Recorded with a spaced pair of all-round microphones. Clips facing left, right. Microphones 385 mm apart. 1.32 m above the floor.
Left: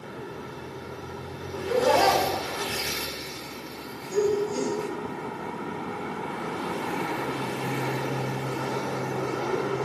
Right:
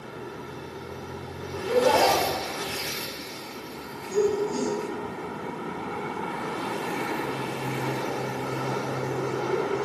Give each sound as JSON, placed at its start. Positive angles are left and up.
{"t": 1.6, "sound": "laughter", "side_deg": 35, "distance_m": 2.5}